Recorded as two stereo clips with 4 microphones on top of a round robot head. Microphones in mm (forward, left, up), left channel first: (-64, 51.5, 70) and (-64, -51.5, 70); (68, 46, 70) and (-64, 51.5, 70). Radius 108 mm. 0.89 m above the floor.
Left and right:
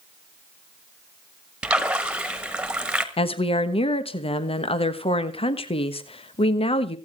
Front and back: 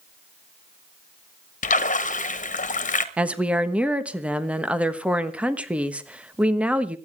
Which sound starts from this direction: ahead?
A splash, at 1.6 s.